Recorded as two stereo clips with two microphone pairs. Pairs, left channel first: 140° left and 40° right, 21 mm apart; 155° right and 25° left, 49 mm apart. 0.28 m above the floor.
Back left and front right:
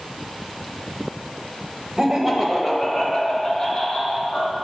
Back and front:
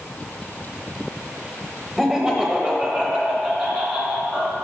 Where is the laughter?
45° right, 0.9 m; by 4.5 s 65° left, 1.6 m.